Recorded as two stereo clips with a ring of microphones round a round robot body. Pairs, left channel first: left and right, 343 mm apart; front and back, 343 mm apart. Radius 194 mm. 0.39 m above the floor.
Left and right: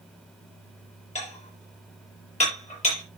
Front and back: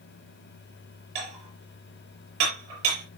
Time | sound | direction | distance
1.1 | dishes clattering | 160° left | 6.5 m